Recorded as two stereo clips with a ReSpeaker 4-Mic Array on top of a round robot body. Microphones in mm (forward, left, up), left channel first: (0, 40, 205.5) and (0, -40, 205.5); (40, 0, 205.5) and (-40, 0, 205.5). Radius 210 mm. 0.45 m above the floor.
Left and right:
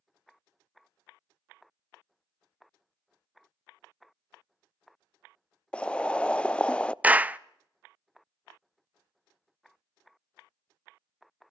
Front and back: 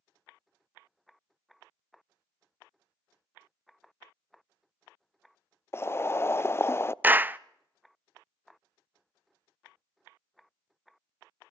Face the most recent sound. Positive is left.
turn(degrees=-140)